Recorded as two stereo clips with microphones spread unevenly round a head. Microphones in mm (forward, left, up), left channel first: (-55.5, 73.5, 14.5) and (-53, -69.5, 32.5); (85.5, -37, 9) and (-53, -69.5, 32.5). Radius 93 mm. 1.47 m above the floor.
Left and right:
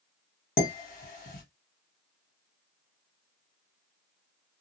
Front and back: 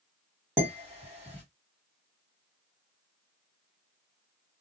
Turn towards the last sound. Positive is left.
turn(degrees=115)